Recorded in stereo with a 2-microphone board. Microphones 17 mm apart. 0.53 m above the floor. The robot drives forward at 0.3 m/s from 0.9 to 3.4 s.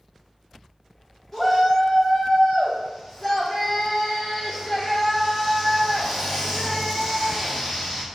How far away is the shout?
About 1.1 m.